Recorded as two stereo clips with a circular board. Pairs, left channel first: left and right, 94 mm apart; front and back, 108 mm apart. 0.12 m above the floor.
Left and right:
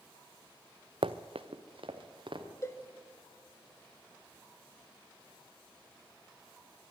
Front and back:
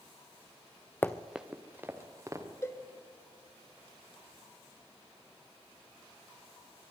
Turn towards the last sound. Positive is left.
turn(degrees=50)